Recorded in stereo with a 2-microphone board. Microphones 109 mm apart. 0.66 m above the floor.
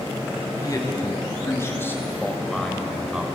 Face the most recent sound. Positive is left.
turn(degrees=-10)  # may be behind; listen again after turning